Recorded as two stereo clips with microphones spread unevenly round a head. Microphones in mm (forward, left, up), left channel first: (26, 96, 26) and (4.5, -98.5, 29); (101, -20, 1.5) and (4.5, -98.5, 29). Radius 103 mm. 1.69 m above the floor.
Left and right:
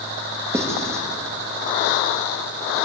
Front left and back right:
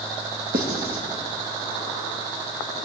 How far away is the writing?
About 2.5 m.